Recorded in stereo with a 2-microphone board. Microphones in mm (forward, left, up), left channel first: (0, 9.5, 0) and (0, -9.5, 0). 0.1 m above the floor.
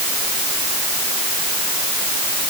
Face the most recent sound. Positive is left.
No sound to turn to.